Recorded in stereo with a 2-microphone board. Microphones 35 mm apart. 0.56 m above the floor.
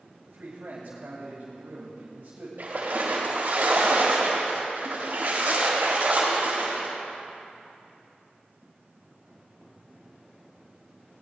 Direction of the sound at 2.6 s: 70° right (ahead or behind).